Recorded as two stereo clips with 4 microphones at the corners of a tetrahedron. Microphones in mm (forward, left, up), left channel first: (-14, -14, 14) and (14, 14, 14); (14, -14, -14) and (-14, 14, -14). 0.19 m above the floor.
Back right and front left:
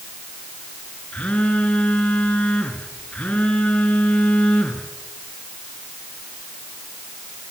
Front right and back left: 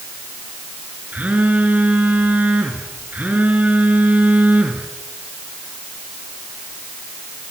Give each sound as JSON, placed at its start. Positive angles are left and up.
{"t": 1.1, "sound": "a phone buzzing", "azimuth_deg": 175, "distance_m": 3.5}